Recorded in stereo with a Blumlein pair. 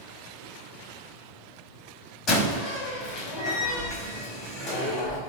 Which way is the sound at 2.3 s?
20° left.